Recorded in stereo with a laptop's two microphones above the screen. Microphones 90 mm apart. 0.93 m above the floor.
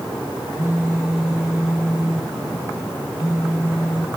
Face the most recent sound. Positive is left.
turn(degrees=-10)  # may be behind; listen again after turning